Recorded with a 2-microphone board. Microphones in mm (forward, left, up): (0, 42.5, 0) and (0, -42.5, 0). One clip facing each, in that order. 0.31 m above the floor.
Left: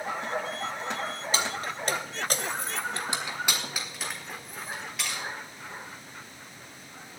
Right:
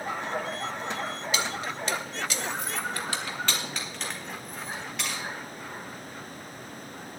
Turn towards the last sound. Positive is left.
turn(degrees=0)  # may be behind; listen again after turning